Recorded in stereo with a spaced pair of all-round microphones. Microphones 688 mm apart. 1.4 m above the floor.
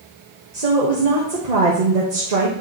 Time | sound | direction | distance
0.5 | a woman speaking | 70° right (ahead or behind) | 1.4 m